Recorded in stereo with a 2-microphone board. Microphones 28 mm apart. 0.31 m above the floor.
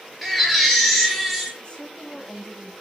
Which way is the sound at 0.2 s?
Centre (ahead or behind).